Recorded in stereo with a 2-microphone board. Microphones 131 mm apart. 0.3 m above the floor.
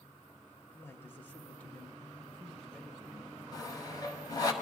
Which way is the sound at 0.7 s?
20° left (ahead or behind).